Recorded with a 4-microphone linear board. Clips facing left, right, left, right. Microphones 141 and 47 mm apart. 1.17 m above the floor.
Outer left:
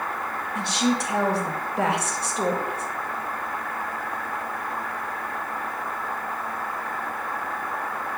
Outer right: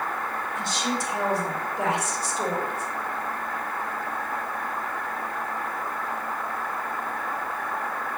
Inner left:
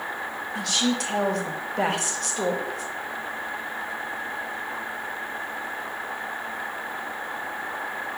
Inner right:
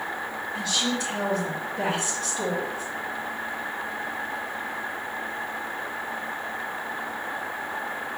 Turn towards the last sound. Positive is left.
turn(degrees=70)  # may be behind; listen again after turning